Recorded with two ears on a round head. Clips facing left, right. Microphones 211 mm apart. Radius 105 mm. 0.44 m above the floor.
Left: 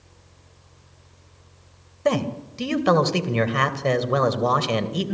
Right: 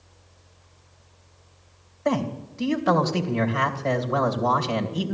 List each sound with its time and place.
2.0 s a man speaking: 50° left (ahead or behind), 2.5 m